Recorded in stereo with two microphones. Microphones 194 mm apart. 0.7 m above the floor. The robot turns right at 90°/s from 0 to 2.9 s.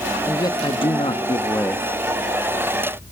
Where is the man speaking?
15° left (ahead or behind), 1.0 m; by 1.9 s 5° left (ahead or behind), 1.0 m.